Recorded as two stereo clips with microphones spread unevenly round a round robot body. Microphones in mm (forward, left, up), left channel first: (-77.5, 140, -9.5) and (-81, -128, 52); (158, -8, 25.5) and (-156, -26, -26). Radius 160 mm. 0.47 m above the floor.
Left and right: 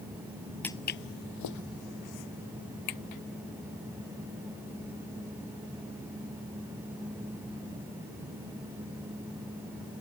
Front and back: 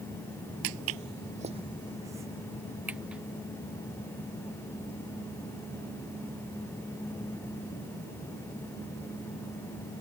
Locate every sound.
0.6 s footsteps: 170° right; by 3.2 s 95° left